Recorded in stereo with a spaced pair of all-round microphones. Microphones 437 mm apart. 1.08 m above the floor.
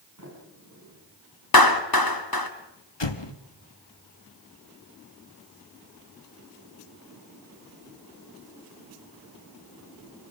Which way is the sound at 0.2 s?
45° right (ahead or behind).